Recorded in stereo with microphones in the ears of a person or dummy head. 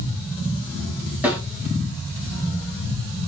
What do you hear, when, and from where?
1.2 s a snare drum: 15° right (ahead or behind), 4 m